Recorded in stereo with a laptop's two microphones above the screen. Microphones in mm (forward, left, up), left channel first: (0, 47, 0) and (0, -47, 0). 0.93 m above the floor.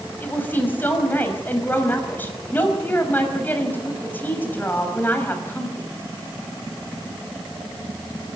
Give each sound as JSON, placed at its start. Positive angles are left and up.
{"t": 0.2, "sound": "a woman speaking", "side_deg": 20, "distance_m": 5.5}